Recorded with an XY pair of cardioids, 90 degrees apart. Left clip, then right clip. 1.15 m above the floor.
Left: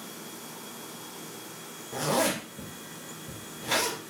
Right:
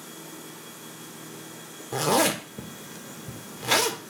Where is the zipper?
60° right, 0.9 m.